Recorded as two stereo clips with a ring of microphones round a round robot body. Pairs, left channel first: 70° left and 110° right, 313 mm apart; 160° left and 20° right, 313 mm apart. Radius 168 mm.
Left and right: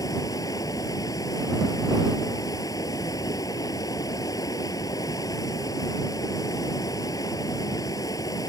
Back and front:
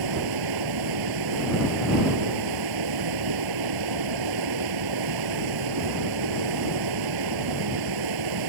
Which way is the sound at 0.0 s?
10° right.